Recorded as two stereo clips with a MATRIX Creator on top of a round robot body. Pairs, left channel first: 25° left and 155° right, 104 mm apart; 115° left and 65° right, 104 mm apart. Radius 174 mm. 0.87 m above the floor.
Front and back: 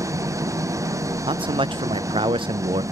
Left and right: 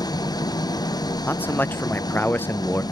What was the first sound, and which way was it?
An engine running, 150° left.